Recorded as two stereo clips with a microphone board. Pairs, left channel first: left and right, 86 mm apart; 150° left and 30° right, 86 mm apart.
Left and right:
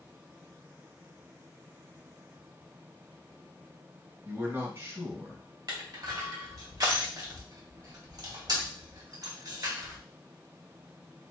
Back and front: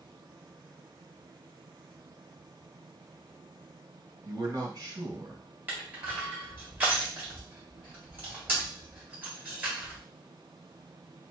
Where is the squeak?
I don't hear a squeak.